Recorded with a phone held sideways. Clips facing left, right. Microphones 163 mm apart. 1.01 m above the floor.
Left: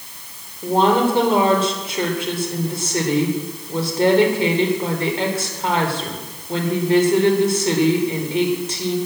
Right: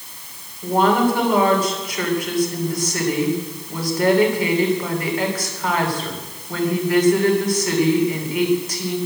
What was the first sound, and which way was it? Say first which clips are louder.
A woman speaking: left 1 dB; 25° left (ahead or behind).